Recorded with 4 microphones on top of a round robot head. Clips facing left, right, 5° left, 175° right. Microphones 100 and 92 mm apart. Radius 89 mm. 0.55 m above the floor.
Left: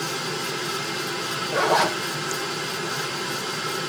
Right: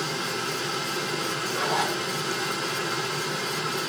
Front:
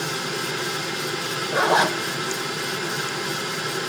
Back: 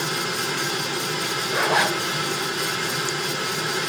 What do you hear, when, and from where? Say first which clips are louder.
1.5 s a zipper: left 7 dB, front 2 dB; 70° left, 1.3 m